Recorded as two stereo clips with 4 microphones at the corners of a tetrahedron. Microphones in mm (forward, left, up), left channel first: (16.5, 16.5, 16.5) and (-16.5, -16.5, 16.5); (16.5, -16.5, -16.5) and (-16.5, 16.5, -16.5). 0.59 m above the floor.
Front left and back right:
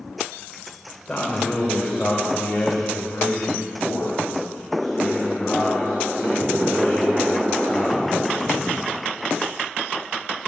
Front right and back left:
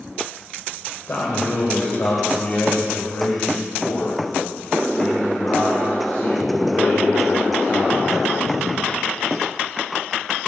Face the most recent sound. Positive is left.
turn(degrees=-5)